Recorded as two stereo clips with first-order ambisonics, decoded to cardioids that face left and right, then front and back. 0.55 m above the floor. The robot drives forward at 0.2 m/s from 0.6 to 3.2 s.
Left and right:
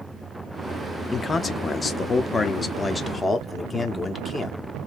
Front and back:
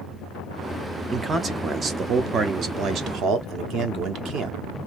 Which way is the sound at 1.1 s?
130° left.